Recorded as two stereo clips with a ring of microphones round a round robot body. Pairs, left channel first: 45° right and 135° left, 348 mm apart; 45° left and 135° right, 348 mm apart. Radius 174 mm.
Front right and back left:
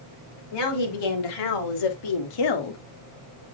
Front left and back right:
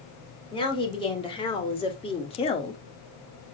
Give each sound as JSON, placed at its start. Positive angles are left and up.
{"t": 0.5, "sound": "a woman speaking", "azimuth_deg": -30, "distance_m": 3.5}